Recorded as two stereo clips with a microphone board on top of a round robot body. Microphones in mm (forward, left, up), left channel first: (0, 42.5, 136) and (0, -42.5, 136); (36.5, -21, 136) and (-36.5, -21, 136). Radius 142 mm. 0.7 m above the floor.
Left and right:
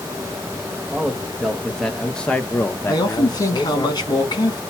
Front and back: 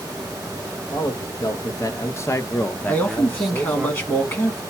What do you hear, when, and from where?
0.9 s a man speaking: 5° right, 1.4 m; by 3.9 s 115° left, 1.0 m
2.9 s a man speaking: 60° left, 2 m